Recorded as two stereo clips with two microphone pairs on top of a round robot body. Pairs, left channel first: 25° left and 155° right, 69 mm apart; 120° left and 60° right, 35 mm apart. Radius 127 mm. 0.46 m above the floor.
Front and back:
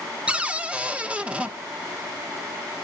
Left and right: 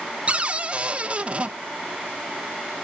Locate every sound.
0.3 s a cupboard door: 95° right, 1.1 m